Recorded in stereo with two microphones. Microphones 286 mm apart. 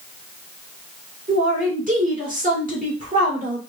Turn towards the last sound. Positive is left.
turn(degrees=-30)  # may be behind; listen again after turning